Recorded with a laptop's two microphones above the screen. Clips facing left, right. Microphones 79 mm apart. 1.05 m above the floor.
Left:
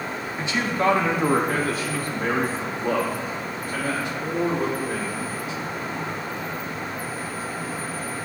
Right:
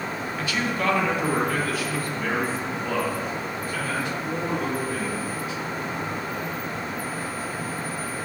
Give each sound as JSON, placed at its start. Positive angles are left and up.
{"t": 0.4, "sound": "a man speaking", "side_deg": 25, "distance_m": 0.6}